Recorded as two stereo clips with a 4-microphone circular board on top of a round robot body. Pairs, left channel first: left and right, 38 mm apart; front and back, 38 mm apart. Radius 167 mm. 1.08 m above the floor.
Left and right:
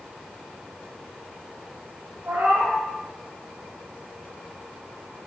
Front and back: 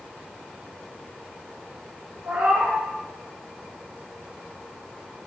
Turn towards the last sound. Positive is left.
turn(degrees=-135)